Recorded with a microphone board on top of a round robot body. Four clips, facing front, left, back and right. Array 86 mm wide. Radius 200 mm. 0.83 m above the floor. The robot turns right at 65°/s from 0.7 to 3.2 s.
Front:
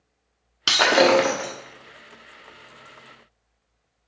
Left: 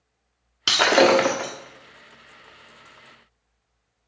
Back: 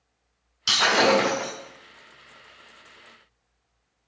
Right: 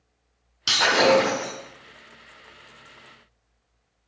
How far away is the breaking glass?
About 1.3 m.